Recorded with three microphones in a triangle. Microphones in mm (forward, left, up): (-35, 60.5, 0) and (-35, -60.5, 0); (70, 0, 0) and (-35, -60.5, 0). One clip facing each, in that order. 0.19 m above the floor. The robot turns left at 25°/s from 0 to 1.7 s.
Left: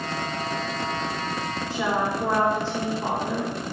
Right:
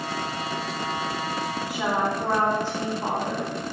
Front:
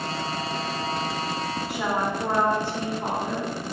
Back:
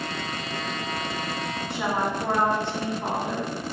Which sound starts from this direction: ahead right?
A woman speaking, at 1.7 s.